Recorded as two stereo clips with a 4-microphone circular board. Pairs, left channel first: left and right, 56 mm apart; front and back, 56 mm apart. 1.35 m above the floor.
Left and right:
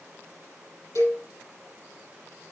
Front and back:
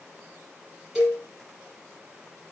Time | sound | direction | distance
0.9 | a cowbell | 100° left | 7 m